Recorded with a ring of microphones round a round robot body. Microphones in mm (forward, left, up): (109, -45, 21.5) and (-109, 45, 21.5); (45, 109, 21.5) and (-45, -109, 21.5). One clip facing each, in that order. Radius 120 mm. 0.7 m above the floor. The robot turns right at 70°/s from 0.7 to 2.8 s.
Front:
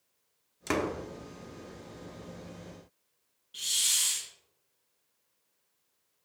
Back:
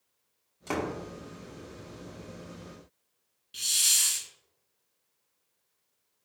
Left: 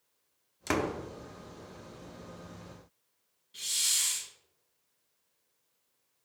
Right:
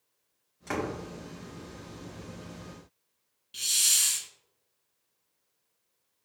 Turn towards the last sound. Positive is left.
turn(degrees=-150)